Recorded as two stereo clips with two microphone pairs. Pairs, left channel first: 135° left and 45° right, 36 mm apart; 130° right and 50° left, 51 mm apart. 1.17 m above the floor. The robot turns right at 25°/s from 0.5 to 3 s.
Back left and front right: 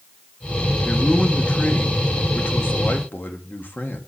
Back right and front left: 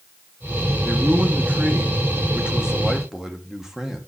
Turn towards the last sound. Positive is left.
turn(degrees=130)